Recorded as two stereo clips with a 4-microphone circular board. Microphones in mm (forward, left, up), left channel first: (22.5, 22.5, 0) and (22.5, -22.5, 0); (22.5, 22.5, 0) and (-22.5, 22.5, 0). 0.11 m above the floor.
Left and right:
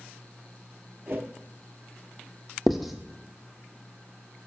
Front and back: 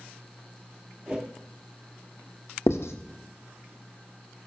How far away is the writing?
About 0.8 m.